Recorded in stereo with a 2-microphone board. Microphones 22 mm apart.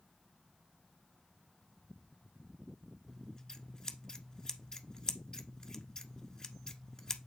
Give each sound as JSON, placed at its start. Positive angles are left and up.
{"t": 3.1, "sound": "scissors", "side_deg": 30, "distance_m": 1.1}